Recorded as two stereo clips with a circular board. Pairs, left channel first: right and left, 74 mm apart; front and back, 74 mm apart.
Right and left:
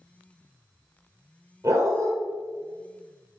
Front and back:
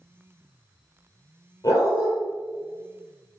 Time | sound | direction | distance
1.6 | a dog barking | 45° left | 4 m